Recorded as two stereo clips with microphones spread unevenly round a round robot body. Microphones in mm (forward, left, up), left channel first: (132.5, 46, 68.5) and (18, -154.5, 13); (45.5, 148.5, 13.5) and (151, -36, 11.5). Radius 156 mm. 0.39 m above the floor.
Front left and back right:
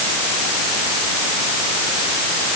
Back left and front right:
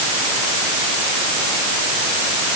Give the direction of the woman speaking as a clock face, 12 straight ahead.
I don't hear a woman speaking.